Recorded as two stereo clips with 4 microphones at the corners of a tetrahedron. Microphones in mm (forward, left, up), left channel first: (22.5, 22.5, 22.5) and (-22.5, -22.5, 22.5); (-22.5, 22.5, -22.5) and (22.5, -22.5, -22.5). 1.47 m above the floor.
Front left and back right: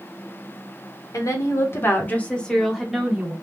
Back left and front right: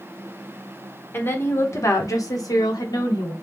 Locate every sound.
1.1 s a woman speaking: 80° left, 1.2 m; by 3.3 s 150° left, 1.2 m